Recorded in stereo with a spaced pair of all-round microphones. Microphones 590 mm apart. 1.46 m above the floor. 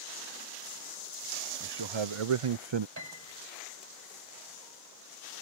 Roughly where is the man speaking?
Right.